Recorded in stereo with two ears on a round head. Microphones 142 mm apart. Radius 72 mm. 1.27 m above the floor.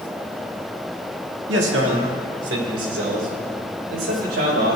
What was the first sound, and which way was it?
A man speaking, 80° right.